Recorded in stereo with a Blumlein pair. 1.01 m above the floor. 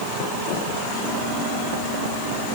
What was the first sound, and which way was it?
Only background noise.